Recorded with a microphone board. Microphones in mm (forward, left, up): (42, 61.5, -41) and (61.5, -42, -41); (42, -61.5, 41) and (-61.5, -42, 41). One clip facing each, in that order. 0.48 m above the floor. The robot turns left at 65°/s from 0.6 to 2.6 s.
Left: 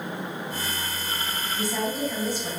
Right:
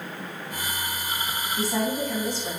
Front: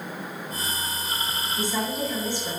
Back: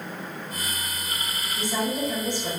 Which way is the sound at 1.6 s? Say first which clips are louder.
Right 2 dB, back 2 dB; 125° right.